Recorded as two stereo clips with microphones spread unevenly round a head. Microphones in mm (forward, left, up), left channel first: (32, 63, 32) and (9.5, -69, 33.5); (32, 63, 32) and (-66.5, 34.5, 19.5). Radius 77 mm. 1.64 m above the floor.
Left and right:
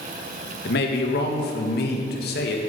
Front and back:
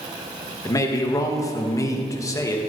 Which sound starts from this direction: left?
A man speaking, at 0.7 s.